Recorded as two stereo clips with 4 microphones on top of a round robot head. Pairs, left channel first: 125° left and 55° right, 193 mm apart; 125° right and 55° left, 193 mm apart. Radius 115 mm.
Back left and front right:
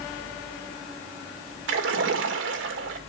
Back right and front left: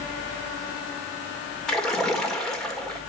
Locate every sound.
1.7 s a splash: 40° right, 2.0 m